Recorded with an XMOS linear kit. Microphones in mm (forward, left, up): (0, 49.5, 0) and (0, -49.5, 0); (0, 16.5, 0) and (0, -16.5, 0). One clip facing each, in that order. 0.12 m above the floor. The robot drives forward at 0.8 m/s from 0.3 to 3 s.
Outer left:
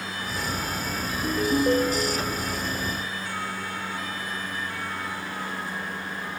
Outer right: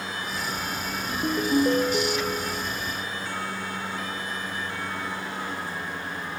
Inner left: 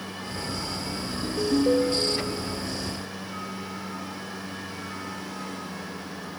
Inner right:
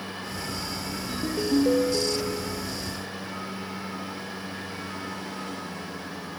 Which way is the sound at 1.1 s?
35° right (ahead or behind).